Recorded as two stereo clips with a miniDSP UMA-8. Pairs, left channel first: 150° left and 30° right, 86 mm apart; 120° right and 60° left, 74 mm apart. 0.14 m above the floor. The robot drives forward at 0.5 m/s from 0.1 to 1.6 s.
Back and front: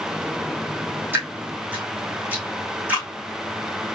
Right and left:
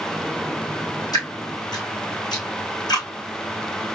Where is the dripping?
95° right, 3 m; by 3.1 s 100° right, 3 m.